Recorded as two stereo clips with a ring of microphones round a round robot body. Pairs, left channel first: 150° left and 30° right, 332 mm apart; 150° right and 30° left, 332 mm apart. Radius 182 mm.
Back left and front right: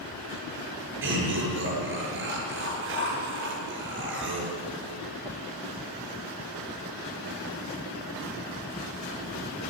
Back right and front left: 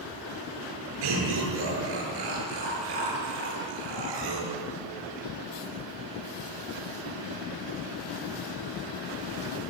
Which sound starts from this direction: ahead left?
Laughter, at 1.0 s.